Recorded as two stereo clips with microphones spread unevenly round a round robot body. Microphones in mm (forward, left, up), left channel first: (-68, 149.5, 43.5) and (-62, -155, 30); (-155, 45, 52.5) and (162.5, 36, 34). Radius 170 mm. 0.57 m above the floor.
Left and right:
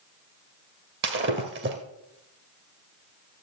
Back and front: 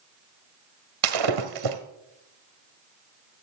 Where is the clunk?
I don't hear a clunk.